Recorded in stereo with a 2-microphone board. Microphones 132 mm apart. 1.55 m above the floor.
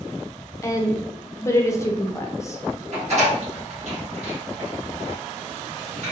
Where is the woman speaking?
20° left (ahead or behind), 0.6 m.